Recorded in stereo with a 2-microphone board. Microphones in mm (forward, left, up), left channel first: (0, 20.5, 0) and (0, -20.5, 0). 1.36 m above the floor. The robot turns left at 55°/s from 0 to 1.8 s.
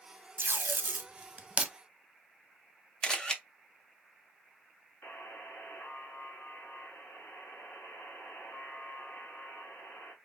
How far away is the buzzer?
About 1.8 m.